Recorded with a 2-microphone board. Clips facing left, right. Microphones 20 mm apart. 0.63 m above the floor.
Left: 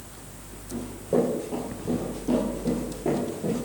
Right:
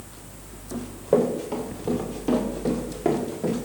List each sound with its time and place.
0.7 s running footsteps: 85° right, 6 m; by 3.6 s 80° right, 7.5 m